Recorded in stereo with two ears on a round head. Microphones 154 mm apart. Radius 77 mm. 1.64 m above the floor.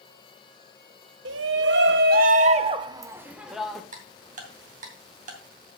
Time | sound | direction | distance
1.2 | a shout | 80° right | 1.3 m
3.9 | ticking | 50° right (ahead or behind) | 2.5 m